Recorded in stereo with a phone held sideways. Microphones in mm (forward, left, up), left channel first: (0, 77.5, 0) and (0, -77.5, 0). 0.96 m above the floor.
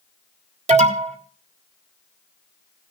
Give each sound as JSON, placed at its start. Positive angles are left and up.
{"t": 0.7, "sound": "an alarm", "side_deg": -45, "distance_m": 1.7}